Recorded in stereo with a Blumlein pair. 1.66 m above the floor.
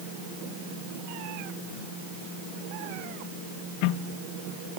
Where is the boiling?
I don't hear boiling.